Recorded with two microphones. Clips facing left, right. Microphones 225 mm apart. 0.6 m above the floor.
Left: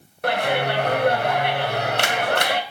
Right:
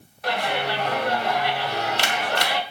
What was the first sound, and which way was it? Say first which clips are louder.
A clap: left 4 dB; 60° left (ahead or behind).